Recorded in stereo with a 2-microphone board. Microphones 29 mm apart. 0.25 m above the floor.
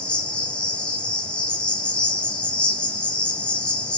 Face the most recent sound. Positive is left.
turn(degrees=35)  # may be behind; listen again after turning